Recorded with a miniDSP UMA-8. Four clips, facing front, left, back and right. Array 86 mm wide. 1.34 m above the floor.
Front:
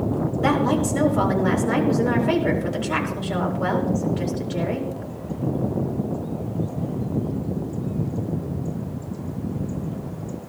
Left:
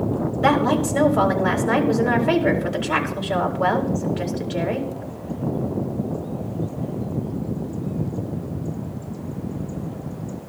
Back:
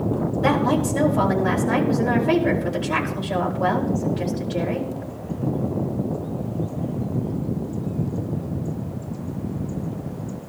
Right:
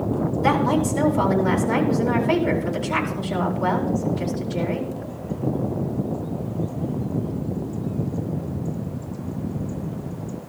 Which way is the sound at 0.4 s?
75° left.